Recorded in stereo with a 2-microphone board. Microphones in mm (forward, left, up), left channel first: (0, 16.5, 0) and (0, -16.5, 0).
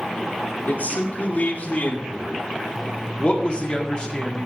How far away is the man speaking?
About 2.5 m.